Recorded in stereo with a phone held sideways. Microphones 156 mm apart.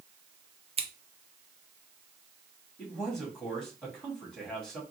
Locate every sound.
0.8 s scissors: 35° right (ahead or behind), 0.6 m
2.8 s a man speaking: 5° left (ahead or behind), 2 m